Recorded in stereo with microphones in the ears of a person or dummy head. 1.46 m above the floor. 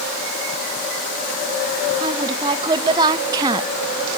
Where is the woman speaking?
25° right (ahead or behind), 2 m; by 3.7 s 15° right (ahead or behind), 0.5 m.